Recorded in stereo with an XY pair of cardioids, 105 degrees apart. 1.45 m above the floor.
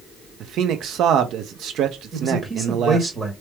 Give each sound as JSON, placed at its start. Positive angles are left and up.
{"t": 0.4, "sound": "a man speaking", "azimuth_deg": -70, "distance_m": 1.0}
{"t": 2.1, "sound": "a man speaking", "azimuth_deg": -20, "distance_m": 1.8}